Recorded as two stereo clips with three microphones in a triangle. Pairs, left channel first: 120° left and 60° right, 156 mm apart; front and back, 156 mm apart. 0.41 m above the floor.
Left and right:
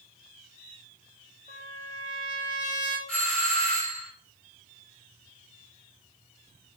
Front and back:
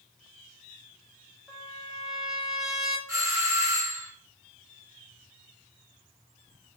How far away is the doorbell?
About 1.6 m.